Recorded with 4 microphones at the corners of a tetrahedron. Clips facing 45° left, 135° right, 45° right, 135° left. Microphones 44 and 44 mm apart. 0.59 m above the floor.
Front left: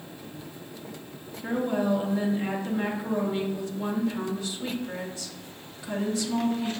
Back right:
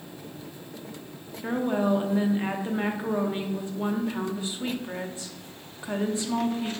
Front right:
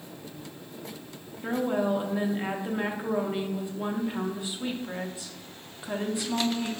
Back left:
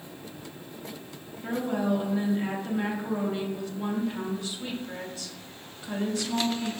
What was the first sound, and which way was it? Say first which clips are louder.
A woman speaking: back right 1 dB, front right 1 dB; 90° right.